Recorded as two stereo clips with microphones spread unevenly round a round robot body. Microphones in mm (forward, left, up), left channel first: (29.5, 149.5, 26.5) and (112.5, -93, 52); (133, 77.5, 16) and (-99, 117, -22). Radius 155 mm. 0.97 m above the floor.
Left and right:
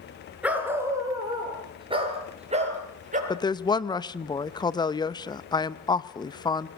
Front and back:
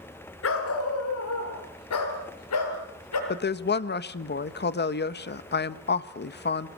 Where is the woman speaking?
40° left, 1.2 m.